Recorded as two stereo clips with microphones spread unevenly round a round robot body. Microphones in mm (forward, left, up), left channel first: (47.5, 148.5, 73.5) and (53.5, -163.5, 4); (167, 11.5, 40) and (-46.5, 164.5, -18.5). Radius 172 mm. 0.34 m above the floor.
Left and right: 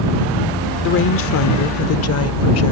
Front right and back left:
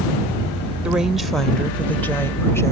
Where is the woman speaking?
100° left; by 2.7 s 50° left.